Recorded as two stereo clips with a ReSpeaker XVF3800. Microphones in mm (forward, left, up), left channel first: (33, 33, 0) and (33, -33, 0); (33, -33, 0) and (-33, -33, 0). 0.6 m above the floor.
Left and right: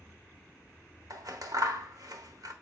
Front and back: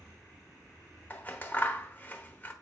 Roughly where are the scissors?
Ahead right.